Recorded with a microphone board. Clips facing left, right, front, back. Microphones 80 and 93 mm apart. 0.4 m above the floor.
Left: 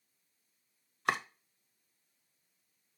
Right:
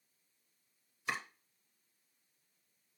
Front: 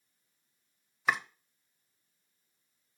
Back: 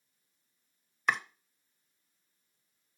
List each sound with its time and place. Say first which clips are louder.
1.1 s chopping: left 7 dB, front 1 dB; 85° left, 0.6 m